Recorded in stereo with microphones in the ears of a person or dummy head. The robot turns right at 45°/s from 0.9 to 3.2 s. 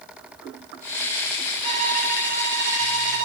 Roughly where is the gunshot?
I don't hear a gunshot.